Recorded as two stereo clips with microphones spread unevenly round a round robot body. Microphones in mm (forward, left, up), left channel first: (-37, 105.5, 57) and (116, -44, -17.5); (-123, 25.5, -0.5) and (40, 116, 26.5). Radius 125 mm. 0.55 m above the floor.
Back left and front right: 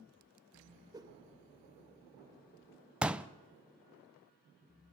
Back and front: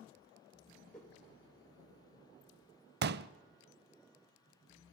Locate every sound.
0.9 s a whoosh: 75° right, 1.2 m
3.0 s a pop: 50° left, 0.6 m